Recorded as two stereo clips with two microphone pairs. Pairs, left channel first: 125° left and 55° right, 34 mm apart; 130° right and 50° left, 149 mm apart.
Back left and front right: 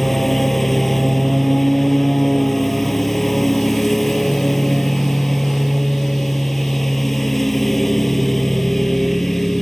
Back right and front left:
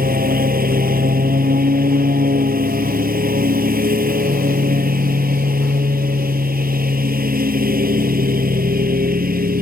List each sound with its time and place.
0.0 s a lawn mower: 45° left